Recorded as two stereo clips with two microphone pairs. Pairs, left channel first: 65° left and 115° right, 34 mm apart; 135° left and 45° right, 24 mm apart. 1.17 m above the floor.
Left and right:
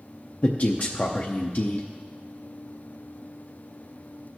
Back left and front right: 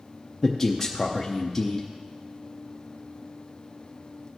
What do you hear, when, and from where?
0.4 s a man speaking: 70° left, 0.7 m